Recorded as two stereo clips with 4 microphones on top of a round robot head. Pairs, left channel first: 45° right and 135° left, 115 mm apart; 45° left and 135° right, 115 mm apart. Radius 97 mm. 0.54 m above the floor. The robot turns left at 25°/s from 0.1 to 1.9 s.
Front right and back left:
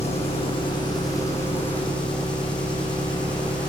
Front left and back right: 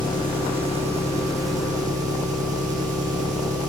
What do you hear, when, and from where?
0.0 s an engine running: 80° right, 9 m; by 3.7 s 125° right, 9 m